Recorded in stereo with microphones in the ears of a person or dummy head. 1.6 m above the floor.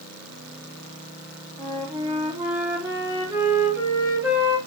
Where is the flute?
10° right (ahead or behind), 3.5 m.